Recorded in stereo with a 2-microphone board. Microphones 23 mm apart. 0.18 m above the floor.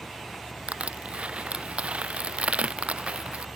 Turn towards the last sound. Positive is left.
turn(degrees=-55)  # may be behind; listen again after turning